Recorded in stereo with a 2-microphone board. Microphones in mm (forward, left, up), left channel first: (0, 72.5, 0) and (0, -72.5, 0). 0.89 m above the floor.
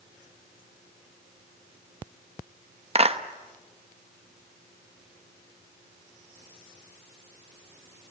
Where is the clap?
45° right (ahead or behind), 1.0 m.